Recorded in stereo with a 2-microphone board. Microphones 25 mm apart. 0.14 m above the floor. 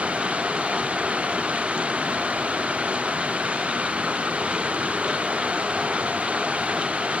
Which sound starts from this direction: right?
Running water, at 0.0 s.